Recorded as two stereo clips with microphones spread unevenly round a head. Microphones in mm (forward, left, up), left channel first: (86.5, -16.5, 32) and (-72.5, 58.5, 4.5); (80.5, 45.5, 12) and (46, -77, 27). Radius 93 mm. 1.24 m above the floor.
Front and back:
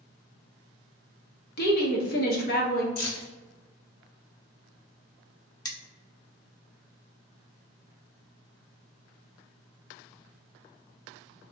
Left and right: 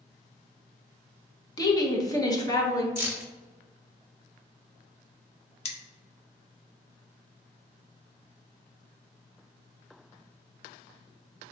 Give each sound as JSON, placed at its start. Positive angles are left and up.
{"t": 1.6, "sound": "a woman speaking", "azimuth_deg": 10, "distance_m": 1.3}
{"t": 3.0, "sound": "keys jangling", "azimuth_deg": -35, "distance_m": 1.9}
{"t": 5.7, "sound": "cutlery clinking", "azimuth_deg": 35, "distance_m": 0.9}